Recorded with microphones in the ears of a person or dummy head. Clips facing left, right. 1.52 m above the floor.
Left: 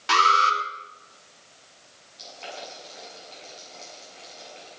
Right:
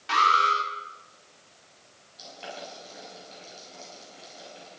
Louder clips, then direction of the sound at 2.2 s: Left 1 dB; 10° right (ahead or behind).